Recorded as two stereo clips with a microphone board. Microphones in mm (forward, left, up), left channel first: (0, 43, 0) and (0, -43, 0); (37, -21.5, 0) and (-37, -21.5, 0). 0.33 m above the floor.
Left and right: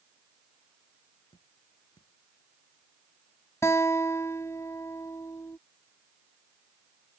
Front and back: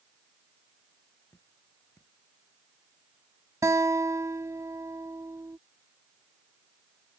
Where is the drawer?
I don't hear a drawer.